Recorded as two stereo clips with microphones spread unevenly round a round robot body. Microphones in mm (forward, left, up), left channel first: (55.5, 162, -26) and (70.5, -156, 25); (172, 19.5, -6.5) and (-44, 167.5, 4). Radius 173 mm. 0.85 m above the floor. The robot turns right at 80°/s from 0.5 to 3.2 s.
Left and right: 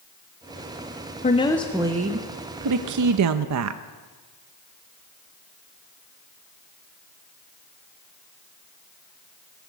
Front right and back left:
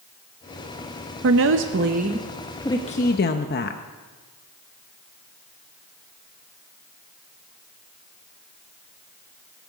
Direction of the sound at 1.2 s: 140° left.